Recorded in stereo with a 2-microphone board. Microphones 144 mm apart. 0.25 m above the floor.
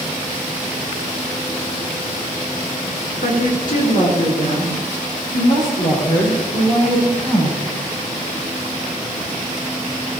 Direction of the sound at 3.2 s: 65° left (ahead or behind).